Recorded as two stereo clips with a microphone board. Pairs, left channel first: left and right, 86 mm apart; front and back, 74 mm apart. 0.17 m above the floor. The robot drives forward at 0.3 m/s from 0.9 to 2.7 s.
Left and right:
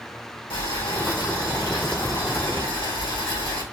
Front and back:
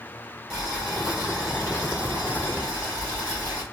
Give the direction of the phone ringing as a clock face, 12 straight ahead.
No phone ringing in this recording.